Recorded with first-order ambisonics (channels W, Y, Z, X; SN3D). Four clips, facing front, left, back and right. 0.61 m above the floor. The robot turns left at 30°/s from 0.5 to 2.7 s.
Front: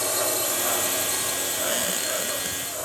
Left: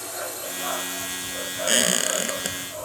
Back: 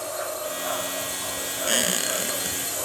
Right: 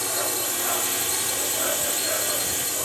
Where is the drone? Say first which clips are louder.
Right 5 dB, front 4 dB; 40° right; by 2.9 s 105° right.